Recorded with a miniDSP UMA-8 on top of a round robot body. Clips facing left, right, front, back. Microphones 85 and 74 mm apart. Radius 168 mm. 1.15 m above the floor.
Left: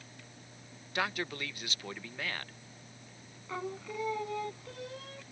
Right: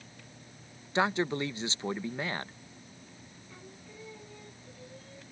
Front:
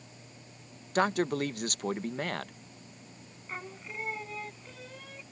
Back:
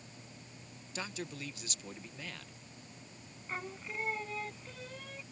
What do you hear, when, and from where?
0.9 s a man speaking: 25° right
3.5 s singing: 90° left